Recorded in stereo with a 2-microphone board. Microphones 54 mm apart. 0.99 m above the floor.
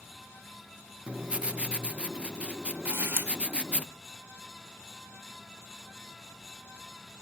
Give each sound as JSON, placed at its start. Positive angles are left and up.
{"t": 1.1, "sound": "writing", "side_deg": -20, "distance_m": 0.7}
{"t": 2.9, "sound": "a camera shutter", "side_deg": -40, "distance_m": 2.5}